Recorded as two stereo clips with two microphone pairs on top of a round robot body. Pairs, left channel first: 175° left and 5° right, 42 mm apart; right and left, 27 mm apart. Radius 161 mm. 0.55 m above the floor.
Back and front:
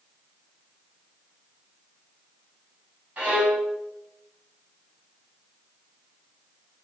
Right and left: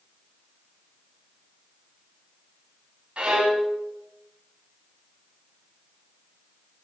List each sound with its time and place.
3.2 s a violin: 40° left, 3 m